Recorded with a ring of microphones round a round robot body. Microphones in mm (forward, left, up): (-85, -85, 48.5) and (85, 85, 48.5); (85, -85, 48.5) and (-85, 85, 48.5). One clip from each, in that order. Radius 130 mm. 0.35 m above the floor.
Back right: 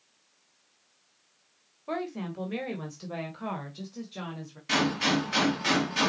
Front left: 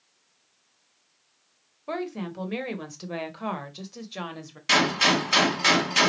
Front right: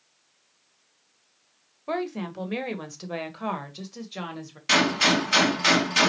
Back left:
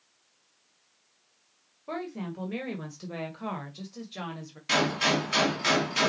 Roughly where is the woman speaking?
Ahead right.